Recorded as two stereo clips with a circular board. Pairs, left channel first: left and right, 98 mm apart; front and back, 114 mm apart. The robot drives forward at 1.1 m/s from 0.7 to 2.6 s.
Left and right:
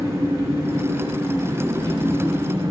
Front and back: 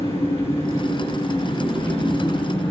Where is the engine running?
30° right, 7 m; by 2.7 s 40° right, 5 m.